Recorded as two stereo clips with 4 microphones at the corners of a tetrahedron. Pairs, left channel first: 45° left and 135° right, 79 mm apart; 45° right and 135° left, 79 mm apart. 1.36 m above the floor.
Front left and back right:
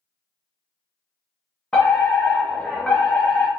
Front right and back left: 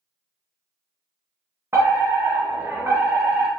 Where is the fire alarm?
120° left, 0.9 m.